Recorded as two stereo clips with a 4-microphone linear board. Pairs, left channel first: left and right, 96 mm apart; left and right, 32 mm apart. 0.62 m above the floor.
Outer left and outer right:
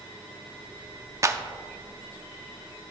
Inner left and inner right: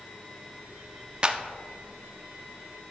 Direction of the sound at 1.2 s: 30° right (ahead or behind).